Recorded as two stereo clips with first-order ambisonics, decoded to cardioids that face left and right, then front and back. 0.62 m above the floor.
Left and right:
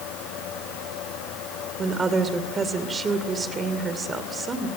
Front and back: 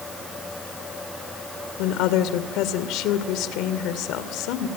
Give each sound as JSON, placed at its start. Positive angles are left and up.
{"t": 1.8, "sound": "a woman speaking", "azimuth_deg": -20, "distance_m": 2.5}